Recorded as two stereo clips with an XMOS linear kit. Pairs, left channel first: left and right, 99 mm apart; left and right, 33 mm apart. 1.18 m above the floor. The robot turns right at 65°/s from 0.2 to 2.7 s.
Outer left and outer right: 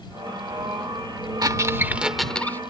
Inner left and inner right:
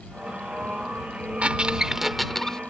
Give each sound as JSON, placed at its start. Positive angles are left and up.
{"t": 1.4, "sound": "a squeak", "azimuth_deg": -50}